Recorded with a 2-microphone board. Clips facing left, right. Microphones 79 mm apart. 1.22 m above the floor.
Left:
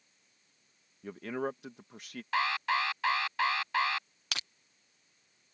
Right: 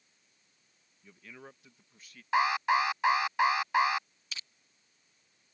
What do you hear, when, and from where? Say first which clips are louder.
1.0 s a man speaking: left 16 dB; 70° left (ahead or behind)
2.3 s an alarm: right 4 dB; 20° right (ahead or behind)
4.3 s crushing: left 6 dB; 70° left (ahead or behind)